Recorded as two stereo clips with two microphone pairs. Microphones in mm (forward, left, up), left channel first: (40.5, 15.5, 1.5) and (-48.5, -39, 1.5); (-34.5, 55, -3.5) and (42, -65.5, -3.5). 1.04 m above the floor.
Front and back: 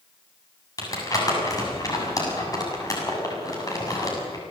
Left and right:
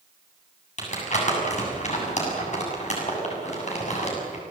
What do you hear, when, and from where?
0.8 s crumpling: 85° left, 7.5 m